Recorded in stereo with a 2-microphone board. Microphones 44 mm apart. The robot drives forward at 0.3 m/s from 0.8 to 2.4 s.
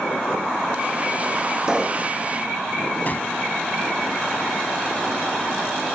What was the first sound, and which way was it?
A pop, 15° right (ahead or behind).